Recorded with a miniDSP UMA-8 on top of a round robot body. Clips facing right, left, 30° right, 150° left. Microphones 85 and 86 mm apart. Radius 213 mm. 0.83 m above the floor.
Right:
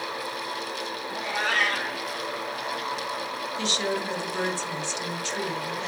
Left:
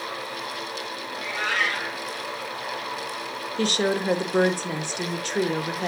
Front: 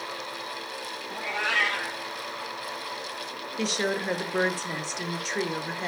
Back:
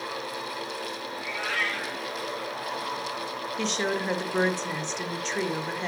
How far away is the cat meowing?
About 3 m.